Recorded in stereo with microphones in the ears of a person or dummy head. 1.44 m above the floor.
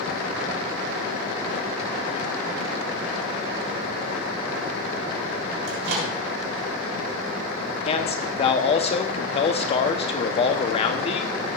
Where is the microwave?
85° right, 3.5 m.